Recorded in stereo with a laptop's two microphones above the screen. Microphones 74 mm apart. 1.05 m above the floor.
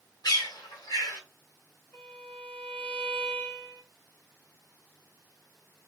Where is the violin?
20° left (ahead or behind), 1.9 m.